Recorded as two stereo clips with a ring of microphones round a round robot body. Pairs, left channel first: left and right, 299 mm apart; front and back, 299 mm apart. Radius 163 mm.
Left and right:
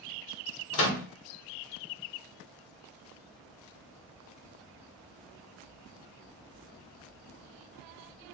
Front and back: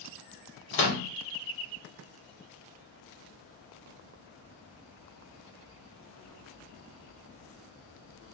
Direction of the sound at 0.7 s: 50° left.